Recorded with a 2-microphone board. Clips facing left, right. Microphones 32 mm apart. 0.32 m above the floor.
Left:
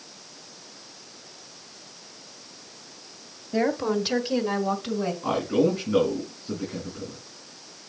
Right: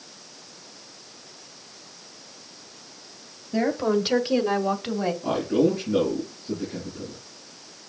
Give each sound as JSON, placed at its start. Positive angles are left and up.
{"t": 3.5, "sound": "a woman speaking", "side_deg": 10, "distance_m": 1.2}
{"t": 5.2, "sound": "a man speaking", "side_deg": 30, "distance_m": 4.5}